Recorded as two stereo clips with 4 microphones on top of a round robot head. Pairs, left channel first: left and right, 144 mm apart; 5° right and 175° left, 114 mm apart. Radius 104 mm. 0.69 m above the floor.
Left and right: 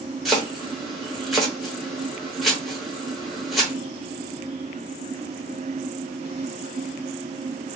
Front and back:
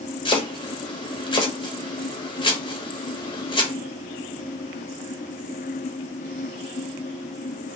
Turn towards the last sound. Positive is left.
turn(degrees=0)